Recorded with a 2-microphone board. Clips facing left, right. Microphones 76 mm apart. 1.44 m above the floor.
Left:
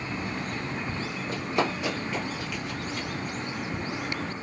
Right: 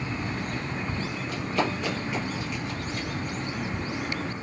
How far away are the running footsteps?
About 1.8 m.